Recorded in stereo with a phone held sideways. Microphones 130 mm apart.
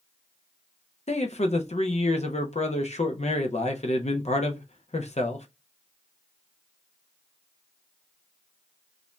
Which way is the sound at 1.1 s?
55° left (ahead or behind).